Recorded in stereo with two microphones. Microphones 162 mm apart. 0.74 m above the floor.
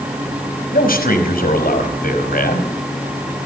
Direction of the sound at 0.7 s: 65° left (ahead or behind).